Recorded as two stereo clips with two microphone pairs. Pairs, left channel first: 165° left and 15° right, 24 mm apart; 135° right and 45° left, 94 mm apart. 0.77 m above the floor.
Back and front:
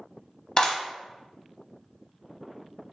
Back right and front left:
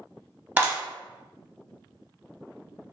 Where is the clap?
115° left, 0.7 m.